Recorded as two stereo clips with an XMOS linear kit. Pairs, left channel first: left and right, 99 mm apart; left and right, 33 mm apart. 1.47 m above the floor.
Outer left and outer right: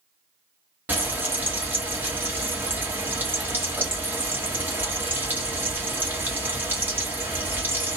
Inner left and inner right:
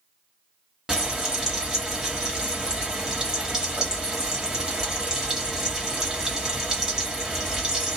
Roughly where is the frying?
Centre.